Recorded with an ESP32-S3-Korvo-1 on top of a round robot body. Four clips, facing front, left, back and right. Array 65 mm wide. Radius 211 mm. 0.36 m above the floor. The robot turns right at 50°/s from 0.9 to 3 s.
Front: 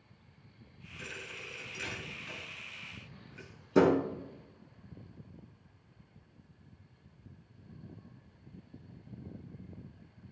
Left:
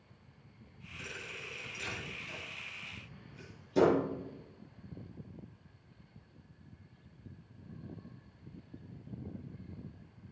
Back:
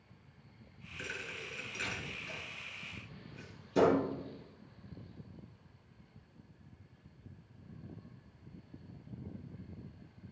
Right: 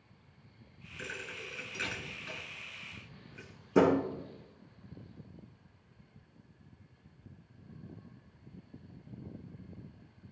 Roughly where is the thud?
Behind right.